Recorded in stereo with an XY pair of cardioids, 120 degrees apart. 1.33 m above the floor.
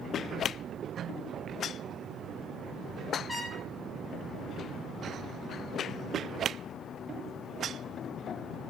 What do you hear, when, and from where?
3.3 s a trumpet: 20° left, 3 m